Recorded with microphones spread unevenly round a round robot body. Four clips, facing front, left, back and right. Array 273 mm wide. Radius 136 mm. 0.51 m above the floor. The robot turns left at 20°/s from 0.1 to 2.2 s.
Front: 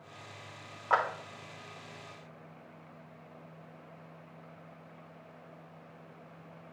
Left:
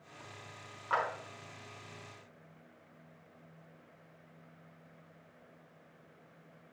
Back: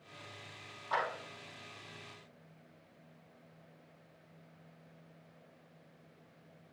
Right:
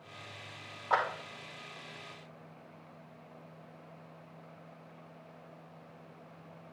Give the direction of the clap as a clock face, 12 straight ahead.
1 o'clock.